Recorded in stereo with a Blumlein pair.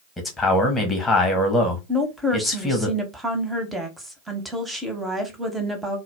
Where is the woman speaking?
5° right, 0.8 m.